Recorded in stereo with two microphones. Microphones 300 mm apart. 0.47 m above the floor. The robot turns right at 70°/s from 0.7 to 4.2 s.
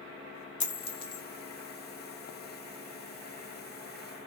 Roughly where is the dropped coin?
Left.